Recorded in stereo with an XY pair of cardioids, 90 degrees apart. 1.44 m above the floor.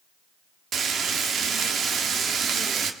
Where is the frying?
65° right, 2.0 m.